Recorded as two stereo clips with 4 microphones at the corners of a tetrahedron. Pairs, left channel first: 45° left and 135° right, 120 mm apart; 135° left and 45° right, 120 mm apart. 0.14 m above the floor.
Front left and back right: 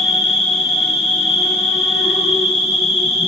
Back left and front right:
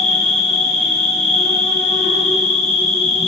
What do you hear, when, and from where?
0.0 s an insect: 45° right, 3 m